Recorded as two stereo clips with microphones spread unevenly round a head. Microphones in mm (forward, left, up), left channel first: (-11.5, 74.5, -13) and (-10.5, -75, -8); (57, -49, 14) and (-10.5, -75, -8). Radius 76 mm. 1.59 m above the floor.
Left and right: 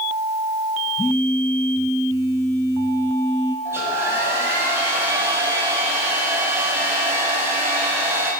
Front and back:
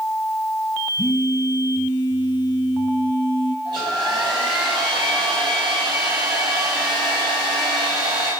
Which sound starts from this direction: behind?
A hair dryer, at 3.6 s.